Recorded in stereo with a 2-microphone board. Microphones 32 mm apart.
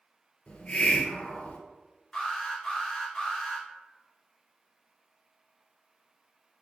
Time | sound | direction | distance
0.5 | a hiss | 40° left (ahead or behind) | 0.8 m
2.1 | an alarm | 10° left (ahead or behind) | 1.8 m